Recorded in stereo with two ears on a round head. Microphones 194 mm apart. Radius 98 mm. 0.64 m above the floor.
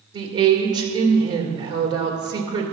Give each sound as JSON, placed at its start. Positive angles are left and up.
{"t": 0.1, "sound": "a woman speaking", "side_deg": -20, "distance_m": 1.9}